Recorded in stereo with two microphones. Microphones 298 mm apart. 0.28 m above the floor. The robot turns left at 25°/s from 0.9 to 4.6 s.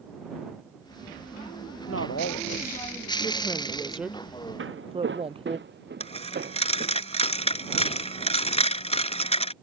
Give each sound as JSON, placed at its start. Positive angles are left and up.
{"t": 1.9, "sound": "a woman speaking", "azimuth_deg": 50}
{"t": 4.6, "sound": "footsteps", "side_deg": -45}
{"t": 6.0, "sound": "a dropped coin", "side_deg": 20}